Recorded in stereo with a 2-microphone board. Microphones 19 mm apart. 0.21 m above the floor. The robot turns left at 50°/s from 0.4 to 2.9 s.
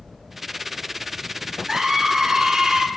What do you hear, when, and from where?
1.7 s a scream: 60° right, 3 m; by 2.9 s 120° right, 3 m